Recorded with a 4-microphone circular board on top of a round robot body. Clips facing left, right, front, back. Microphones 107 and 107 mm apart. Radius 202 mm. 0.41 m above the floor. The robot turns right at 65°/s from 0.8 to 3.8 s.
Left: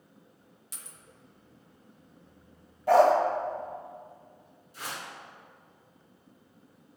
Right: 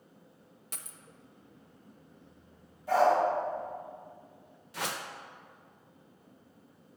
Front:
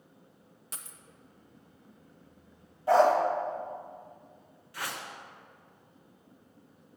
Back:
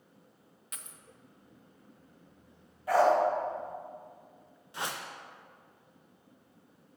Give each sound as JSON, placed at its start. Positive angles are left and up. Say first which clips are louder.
{"t": 0.7, "sound": "a dropped coin", "louder": "right 3 dB, front 2 dB", "azimuth_deg": -60, "distance_m": 0.5}
{"t": 2.9, "sound": "a dog barking", "louder": "left 5 dB, front 2 dB", "azimuth_deg": 65, "distance_m": 0.9}
{"t": 4.7, "sound": "a whoosh", "louder": "right 3 dB, back 1 dB", "azimuth_deg": -110, "distance_m": 0.5}